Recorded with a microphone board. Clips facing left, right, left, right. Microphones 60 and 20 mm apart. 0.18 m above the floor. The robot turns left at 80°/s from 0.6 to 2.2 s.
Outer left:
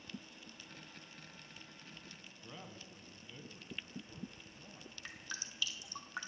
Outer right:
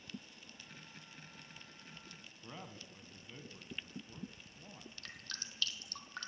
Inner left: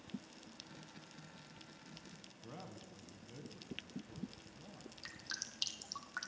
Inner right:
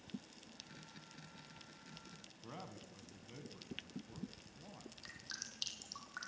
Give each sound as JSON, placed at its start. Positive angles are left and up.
{"t": 2.4, "sound": "a man speaking", "side_deg": -15, "distance_m": 1.1}
{"t": 5.0, "sound": "dripping", "side_deg": 15, "distance_m": 1.1}